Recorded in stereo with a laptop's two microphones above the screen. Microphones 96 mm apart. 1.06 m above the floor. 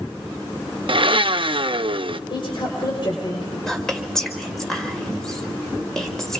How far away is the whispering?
About 5.5 m.